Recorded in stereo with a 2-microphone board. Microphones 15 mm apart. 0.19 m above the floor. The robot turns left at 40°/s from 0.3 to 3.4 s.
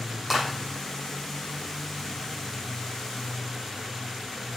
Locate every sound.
0.3 s a clap: 15° left (ahead or behind), 5 m; by 0.5 s 20° left (ahead or behind), 5 m